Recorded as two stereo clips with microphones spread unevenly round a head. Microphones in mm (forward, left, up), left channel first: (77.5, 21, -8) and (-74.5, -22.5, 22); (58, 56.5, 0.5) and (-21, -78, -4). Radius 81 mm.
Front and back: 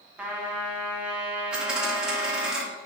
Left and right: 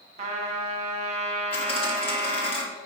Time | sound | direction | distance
0.2 | a trumpet | 75° right | 1.1 m
1.5 | a dropped coin | 115° left | 1.3 m